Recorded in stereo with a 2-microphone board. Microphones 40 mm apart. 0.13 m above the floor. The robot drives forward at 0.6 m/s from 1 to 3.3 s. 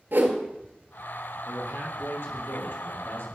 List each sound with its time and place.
0.1 s a whoosh: 60° right (ahead or behind), 1.7 m
1.5 s a man speaking: 70° left (ahead or behind), 4 m